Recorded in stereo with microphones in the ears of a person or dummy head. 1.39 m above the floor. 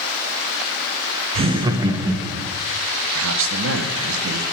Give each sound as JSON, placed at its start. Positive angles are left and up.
{"t": 1.4, "sound": "laughter", "side_deg": -30, "distance_m": 0.7}
{"t": 3.1, "sound": "a man speaking", "side_deg": -75, "distance_m": 1.2}